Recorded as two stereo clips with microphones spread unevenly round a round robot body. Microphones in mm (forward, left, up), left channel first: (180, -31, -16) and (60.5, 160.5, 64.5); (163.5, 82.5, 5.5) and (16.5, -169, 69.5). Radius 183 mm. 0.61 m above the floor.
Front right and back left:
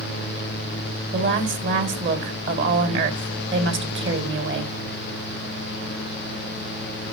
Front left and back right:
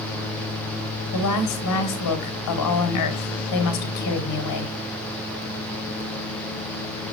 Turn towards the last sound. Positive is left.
turn(degrees=80)